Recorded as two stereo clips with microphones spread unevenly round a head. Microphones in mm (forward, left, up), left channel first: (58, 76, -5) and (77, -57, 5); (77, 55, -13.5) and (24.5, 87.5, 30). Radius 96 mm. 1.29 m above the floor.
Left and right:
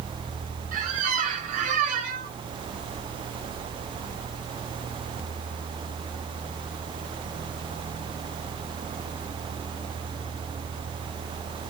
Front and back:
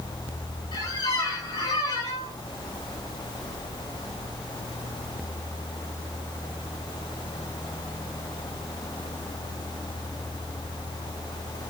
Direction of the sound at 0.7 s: 80° right.